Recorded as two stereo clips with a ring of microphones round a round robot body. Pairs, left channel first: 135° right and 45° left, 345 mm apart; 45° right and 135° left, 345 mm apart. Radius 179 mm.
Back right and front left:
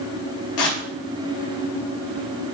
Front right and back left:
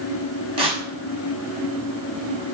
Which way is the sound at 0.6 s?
150° right.